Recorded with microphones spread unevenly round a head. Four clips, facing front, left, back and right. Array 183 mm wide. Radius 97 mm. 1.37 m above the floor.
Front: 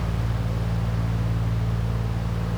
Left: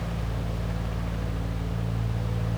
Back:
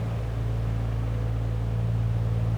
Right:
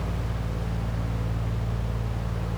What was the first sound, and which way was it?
Only background noise.